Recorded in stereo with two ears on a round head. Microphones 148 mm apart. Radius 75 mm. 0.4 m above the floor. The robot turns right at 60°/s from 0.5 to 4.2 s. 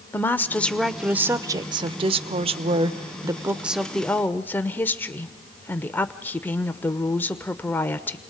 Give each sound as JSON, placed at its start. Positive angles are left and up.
{"t": 0.1, "sound": "a woman speaking", "azimuth_deg": 160, "distance_m": 0.8}